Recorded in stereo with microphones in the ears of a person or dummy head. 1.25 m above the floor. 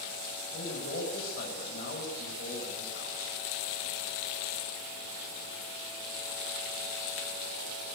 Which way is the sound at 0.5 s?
50° left (ahead or behind).